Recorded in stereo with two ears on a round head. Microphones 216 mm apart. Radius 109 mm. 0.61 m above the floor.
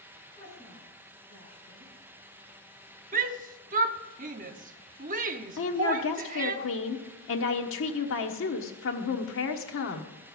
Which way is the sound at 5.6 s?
55° left (ahead or behind).